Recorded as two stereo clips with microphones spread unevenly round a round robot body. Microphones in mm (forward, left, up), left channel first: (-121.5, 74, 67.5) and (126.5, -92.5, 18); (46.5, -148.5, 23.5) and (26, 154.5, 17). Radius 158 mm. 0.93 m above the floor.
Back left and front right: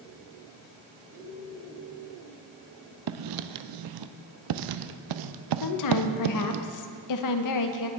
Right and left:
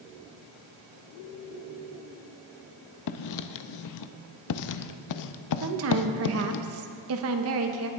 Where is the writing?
55° right, 0.5 m.